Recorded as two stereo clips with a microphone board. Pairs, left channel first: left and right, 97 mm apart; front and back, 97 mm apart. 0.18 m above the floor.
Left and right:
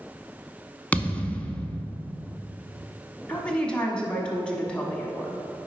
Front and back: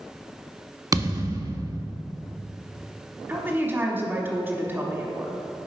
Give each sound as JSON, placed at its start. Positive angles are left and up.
{"t": 0.9, "sound": "a thud", "azimuth_deg": 155, "distance_m": 0.6}
{"t": 3.3, "sound": "a woman speaking", "azimuth_deg": 155, "distance_m": 1.0}